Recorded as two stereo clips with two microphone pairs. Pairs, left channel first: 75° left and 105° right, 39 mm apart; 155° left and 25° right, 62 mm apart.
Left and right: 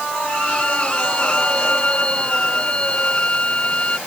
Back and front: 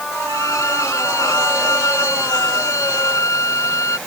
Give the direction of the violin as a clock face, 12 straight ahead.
8 o'clock.